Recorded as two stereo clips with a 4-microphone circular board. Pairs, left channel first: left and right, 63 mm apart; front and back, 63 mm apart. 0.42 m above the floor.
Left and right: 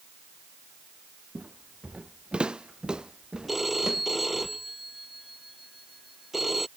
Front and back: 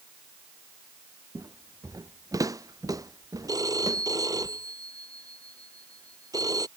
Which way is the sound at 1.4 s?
155° right.